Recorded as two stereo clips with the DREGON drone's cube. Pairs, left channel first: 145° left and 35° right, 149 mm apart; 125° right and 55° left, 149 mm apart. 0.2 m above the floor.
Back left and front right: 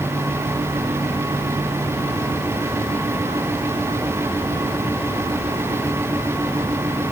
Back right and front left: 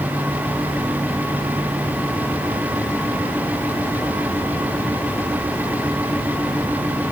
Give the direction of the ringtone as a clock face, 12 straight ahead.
No ringtone in this recording.